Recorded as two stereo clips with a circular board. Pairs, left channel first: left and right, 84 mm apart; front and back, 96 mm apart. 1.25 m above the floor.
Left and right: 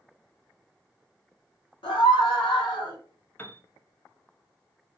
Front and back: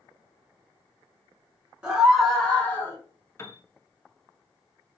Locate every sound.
1.8 s a scream: 100° left, 1.1 m; by 3.0 s 65° left, 1.2 m
3.4 s a piano: 40° left, 0.5 m